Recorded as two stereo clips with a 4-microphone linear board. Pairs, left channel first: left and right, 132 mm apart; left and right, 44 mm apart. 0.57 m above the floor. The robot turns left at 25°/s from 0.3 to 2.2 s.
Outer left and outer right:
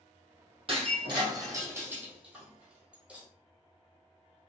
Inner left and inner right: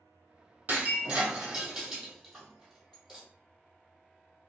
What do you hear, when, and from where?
0.7 s breaking glass: 45° right (ahead or behind), 1.5 m; by 3.3 s 10° right (ahead or behind), 1.5 m